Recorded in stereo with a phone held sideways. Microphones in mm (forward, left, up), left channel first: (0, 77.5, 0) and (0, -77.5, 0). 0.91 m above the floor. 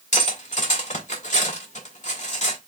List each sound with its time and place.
0.1 s cutlery clinking: 55° left (ahead or behind), 1.7 m